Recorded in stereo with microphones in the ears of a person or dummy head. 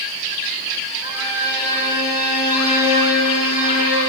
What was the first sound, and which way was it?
A violin, 10° right (ahead or behind).